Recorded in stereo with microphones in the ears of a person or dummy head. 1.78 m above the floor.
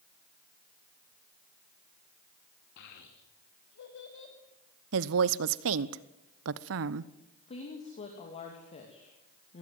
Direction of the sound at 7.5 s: 35° left (ahead or behind).